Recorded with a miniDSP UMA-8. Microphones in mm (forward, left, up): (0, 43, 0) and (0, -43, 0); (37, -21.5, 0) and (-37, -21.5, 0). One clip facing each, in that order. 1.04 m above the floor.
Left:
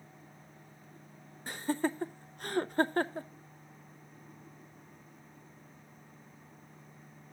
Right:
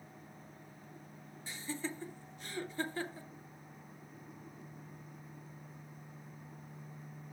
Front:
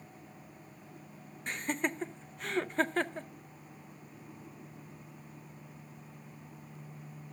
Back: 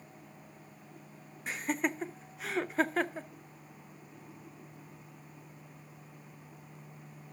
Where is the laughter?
95° left, 0.6 m.